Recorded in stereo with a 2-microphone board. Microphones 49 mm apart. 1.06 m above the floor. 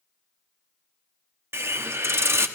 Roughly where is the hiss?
Right.